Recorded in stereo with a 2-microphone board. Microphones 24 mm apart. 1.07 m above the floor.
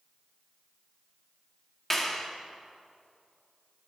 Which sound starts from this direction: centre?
A clap, at 1.9 s.